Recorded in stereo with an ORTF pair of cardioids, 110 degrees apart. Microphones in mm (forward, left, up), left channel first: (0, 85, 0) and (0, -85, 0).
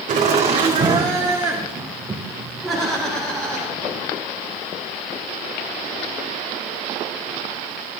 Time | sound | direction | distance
0.1 | laughter | 45° right | 1.9 m